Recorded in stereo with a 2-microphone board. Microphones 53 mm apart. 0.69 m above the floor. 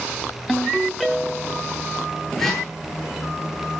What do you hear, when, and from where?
0.5 s a ringtone: 5° left (ahead or behind), 3 m
2.4 s a whoosh: 10° left (ahead or behind), 10 m